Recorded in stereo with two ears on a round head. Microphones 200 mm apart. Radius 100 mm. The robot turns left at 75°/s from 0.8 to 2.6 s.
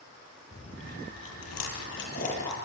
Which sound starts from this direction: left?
Chewing, at 0.5 s.